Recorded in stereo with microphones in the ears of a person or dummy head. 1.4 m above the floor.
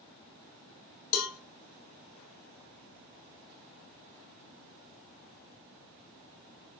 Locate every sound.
1.1 s a cowbell: 75° left (ahead or behind), 0.6 m